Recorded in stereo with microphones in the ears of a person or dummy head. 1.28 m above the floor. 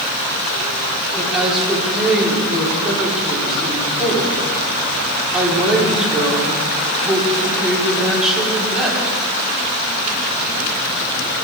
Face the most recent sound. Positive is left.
turn(degrees=0)  # may be behind; listen again after turning